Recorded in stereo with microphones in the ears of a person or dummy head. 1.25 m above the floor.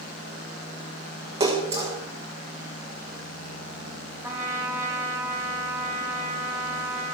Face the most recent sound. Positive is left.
turn(degrees=-15)  # may be behind; listen again after turning